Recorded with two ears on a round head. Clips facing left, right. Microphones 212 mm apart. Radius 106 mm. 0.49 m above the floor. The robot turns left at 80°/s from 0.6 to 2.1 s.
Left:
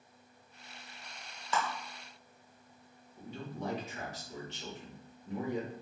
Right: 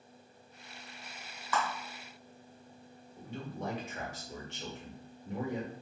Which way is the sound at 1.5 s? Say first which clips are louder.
Even; 25° left (ahead or behind).